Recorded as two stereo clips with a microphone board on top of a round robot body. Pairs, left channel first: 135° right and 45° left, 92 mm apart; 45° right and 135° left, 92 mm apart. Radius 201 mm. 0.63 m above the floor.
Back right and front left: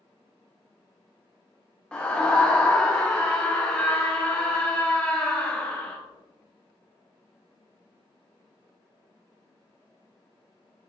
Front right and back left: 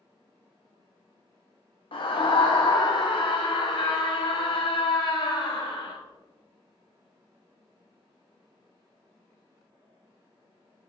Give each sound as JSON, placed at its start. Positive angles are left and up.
{"t": 1.9, "sound": "a scream", "azimuth_deg": -55, "distance_m": 1.3}